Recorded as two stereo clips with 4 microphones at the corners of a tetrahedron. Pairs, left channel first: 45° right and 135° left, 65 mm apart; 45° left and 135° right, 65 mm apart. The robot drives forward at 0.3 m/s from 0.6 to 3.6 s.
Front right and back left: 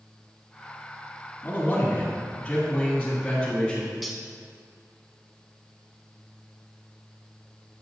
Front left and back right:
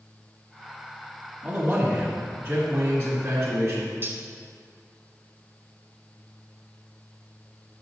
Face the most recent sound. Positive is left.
turn(degrees=-135)